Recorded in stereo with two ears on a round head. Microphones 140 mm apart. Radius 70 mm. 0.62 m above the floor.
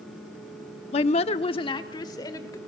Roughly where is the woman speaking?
Left.